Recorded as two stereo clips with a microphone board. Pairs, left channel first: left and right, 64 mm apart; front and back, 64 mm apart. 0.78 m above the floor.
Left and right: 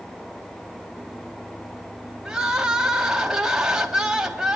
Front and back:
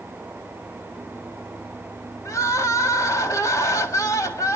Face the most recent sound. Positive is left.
turn(degrees=-15)